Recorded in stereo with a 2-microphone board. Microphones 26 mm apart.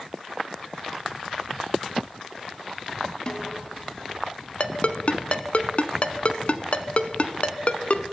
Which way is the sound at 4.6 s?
50° left (ahead or behind).